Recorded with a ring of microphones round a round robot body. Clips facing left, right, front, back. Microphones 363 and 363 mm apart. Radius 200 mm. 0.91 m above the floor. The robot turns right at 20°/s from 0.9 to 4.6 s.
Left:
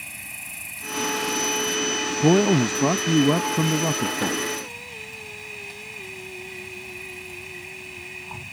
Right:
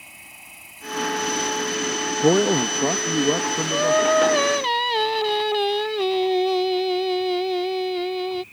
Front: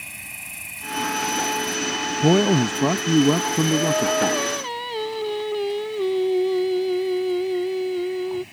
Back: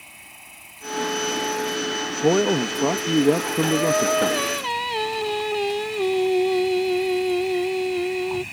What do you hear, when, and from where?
0.0 s an insect: 40° left; by 8.5 s 115° left
2.2 s a man speaking: 35° left; by 4.4 s 80° left
3.7 s singing: 115° right; by 8.4 s 95° right